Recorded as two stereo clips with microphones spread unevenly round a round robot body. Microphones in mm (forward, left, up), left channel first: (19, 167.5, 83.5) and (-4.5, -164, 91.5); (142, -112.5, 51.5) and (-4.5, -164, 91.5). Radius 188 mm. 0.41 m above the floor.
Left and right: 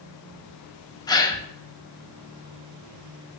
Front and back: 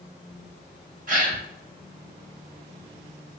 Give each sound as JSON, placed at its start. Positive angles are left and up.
{"t": 1.1, "sound": "a gasp", "azimuth_deg": 160, "distance_m": 0.9}